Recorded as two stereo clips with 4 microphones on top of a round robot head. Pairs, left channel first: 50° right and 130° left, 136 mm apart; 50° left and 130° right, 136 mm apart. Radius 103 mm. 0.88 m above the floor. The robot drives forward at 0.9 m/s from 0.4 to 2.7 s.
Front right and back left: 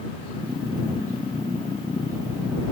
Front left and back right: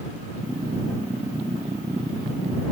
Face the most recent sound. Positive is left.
No sound to turn to.